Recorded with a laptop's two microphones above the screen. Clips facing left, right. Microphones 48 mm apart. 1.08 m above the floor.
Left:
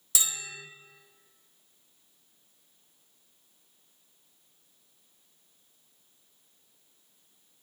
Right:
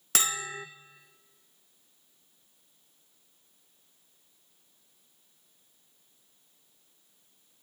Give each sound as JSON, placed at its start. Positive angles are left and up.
{"t": 0.1, "sound": "a bell", "side_deg": -55, "distance_m": 0.5}